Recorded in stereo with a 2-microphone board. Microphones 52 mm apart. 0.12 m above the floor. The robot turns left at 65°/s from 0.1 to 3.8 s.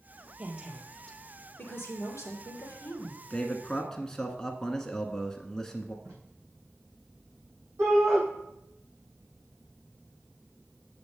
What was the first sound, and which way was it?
A woman speaking, 150° right.